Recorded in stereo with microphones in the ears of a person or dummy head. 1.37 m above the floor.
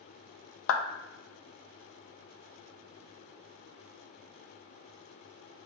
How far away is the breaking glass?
I don't hear breaking glass.